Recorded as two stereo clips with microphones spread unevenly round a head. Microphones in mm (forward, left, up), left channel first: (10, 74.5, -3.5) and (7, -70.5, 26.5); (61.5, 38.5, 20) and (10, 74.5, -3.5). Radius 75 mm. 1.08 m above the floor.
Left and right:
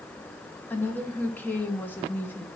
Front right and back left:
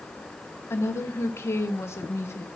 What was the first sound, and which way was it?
A woman speaking, 20° left.